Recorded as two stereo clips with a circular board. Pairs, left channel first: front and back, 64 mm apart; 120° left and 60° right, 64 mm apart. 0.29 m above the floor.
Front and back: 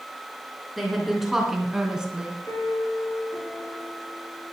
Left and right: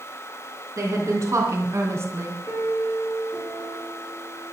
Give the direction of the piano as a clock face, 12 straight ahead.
1 o'clock.